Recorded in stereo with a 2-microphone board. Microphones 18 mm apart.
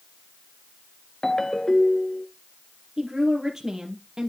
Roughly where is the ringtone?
Left.